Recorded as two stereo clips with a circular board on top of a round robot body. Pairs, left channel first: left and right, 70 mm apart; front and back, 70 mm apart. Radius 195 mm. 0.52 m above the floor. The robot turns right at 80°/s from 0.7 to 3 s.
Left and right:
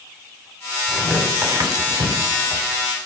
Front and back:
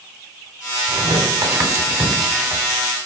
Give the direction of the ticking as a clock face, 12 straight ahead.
No ticking in this recording.